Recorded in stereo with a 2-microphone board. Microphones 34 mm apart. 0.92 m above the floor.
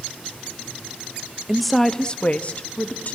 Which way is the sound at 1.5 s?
15° right (ahead or behind).